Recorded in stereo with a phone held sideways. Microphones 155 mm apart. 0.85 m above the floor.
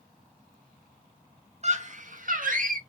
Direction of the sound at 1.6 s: 45° right (ahead or behind).